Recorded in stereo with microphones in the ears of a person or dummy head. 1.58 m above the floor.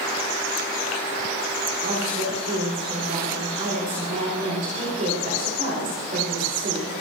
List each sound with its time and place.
1.8 s a woman speaking: 40° right (ahead or behind), 4.5 m